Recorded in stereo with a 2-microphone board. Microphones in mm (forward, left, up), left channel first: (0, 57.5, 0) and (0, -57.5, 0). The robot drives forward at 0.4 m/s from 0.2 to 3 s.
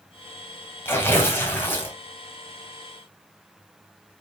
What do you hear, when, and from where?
0.8 s tearing paper: 20° left (ahead or behind), 3 m; by 1.9 s 15° left (ahead or behind), 3.5 m